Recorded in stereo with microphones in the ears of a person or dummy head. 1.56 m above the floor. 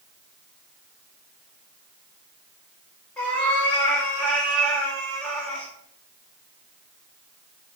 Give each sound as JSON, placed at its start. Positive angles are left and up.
{"t": 3.2, "sound": "a cat meowing", "side_deg": 10, "distance_m": 1.8}